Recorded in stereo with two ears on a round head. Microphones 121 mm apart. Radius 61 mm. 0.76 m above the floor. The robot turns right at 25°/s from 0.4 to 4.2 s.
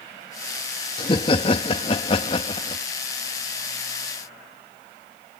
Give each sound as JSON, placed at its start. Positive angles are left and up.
{"t": 1.0, "sound": "laughter", "azimuth_deg": 65}